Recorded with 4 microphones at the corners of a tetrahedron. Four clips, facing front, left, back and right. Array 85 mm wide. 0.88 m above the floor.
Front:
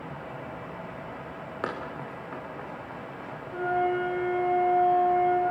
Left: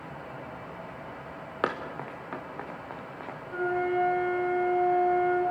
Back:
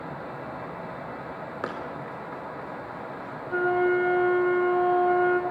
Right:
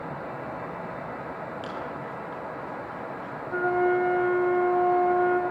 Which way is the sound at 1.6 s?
95° left.